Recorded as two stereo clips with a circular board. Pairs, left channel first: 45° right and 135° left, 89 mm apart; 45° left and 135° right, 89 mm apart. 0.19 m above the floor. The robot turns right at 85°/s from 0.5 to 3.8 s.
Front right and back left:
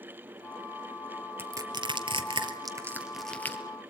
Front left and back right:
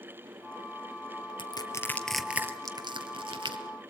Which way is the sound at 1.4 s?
70° left.